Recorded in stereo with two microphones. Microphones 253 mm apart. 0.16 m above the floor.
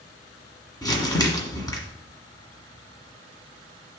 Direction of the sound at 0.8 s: 15° left (ahead or behind).